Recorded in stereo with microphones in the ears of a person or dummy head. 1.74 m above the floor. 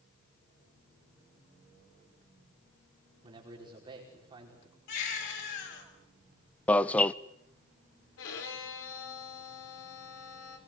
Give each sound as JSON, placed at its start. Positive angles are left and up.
{"t": 3.2, "sound": "a man speaking", "side_deg": -25, "distance_m": 5.5}
{"t": 4.9, "sound": "a baby crying", "side_deg": 75, "distance_m": 8.0}
{"t": 6.7, "sound": "an alarm", "side_deg": 5, "distance_m": 0.6}
{"t": 8.2, "sound": "a violin", "side_deg": 80, "distance_m": 4.5}